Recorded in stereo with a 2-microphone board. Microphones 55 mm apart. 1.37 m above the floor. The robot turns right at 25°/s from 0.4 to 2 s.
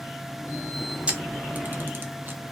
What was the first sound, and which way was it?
A camera shutter, 20° right (ahead or behind).